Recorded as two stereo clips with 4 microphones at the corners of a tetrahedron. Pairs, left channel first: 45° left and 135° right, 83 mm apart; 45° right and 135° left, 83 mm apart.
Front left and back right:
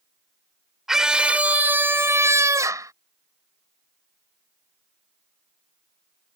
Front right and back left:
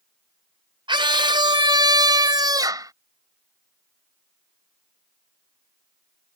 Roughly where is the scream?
Behind left.